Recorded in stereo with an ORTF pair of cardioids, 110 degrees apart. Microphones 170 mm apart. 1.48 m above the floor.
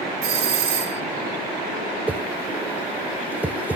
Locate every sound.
0.2 s a doorbell: 60° right, 3 m
2.1 s a whoosh: 10° right, 0.8 m